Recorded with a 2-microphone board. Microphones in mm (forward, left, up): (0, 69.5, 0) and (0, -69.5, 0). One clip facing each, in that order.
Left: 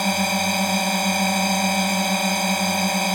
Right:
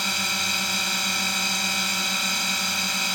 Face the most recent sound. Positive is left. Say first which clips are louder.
# left 11 dB
turn(degrees=50)  # may be behind; listen again after turning